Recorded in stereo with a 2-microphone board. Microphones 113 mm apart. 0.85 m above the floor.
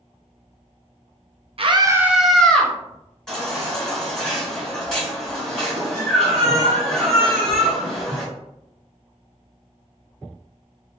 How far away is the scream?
About 0.5 m.